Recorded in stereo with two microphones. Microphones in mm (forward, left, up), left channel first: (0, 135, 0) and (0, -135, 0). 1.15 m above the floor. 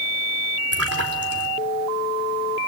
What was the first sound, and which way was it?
A splash, 60° right (ahead or behind).